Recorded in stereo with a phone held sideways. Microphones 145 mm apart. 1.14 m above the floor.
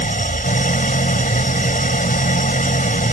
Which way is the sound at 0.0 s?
70° left (ahead or behind).